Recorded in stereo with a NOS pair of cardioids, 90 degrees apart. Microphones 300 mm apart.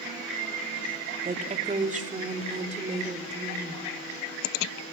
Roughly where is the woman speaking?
Ahead right.